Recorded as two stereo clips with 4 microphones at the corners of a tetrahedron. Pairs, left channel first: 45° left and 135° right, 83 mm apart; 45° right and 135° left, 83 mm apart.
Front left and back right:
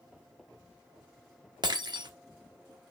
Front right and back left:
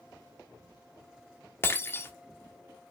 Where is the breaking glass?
105° right, 1.2 m.